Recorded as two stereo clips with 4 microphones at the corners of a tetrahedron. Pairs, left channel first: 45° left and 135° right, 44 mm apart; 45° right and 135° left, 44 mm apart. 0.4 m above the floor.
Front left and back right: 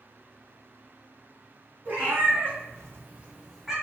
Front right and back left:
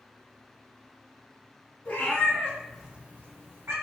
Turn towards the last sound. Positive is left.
turn(degrees=140)